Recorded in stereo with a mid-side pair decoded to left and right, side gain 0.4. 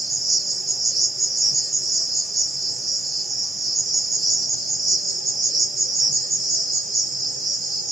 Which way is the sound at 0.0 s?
60° right.